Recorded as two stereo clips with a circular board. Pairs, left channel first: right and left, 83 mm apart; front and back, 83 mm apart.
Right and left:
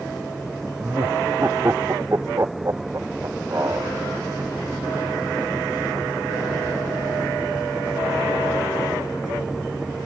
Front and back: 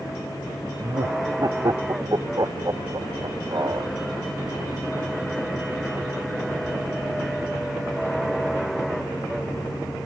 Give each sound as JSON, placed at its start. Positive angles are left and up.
{"t": 0.8, "sound": "laughter", "azimuth_deg": 145}